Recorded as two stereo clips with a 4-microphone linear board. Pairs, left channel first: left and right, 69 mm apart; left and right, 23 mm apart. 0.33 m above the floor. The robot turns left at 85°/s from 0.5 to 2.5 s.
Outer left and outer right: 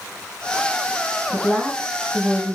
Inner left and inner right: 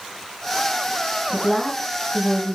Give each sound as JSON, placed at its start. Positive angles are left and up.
{"t": 1.3, "sound": "a woman speaking", "azimuth_deg": 40, "distance_m": 3.0}